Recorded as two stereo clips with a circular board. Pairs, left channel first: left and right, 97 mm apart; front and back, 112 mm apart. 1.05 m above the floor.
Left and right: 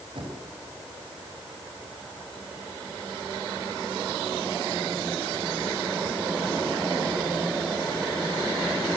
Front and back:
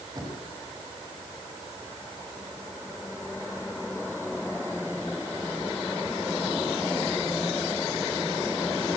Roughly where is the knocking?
Behind right.